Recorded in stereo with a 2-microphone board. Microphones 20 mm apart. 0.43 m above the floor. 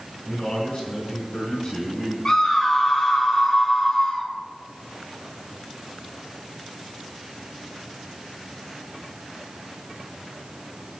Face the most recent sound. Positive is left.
turn(degrees=40)  # may be behind; listen again after turning